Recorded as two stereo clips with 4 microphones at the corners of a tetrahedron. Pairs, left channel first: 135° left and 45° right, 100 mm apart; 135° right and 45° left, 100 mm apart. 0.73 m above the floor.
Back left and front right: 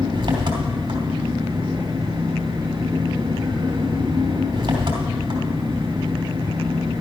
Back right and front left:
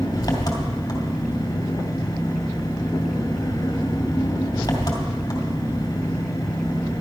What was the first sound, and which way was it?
An engine running, 85° right.